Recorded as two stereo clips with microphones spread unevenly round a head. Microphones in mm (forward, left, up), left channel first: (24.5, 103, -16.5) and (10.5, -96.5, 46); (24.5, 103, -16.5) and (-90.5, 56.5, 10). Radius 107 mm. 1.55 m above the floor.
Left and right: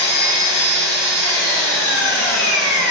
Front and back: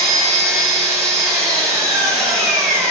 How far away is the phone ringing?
No phone ringing in this recording.